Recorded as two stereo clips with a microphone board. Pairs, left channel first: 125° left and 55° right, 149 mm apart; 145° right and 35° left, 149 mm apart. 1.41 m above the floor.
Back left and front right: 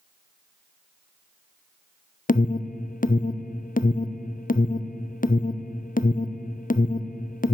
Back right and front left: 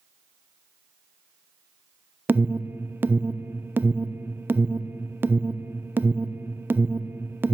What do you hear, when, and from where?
2.3 s an alarm: 110° left, 0.5 m